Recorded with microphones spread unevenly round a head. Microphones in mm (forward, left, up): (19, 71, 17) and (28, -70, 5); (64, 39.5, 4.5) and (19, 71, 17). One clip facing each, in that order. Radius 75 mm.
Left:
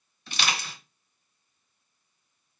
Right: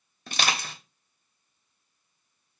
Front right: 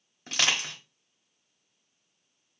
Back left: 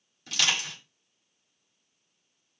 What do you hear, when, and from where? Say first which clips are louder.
0.3 s crushing: right 2 dB, front right 1 dB; 70° right, 1.1 m